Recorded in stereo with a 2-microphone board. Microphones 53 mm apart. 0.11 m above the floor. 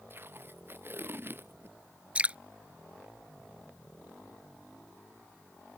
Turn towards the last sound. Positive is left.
turn(degrees=-25)  # may be behind; listen again after turning